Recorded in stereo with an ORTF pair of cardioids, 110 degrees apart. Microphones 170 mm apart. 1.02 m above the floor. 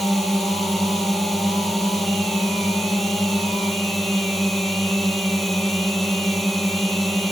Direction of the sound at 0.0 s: Straight ahead.